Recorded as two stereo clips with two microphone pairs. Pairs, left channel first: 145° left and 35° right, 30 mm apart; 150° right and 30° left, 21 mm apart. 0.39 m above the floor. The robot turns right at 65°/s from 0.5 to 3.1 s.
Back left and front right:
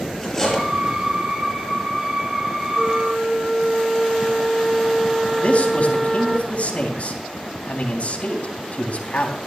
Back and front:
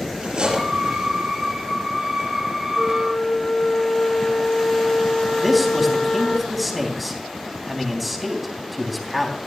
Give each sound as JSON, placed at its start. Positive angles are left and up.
{"t": 0.2, "sound": "cutlery clinking", "azimuth_deg": 70, "distance_m": 5.5}
{"t": 2.8, "sound": "a flute", "azimuth_deg": -130, "distance_m": 0.8}
{"t": 5.4, "sound": "a man speaking", "azimuth_deg": 115, "distance_m": 3.5}